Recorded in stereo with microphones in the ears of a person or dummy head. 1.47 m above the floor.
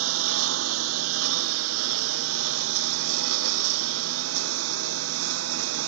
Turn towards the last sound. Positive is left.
turn(degrees=-80)